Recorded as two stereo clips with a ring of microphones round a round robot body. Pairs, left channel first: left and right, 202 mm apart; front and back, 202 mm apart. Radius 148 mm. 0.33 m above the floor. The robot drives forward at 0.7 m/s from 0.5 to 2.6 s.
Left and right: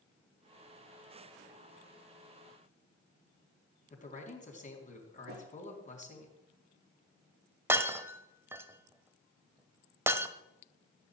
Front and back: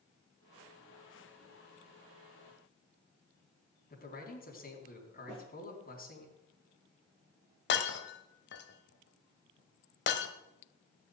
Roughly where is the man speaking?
Ahead left.